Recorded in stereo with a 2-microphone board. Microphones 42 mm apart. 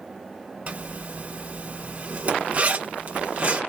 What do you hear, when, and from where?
0.7 s a zipper: 40° right (ahead or behind), 1.3 m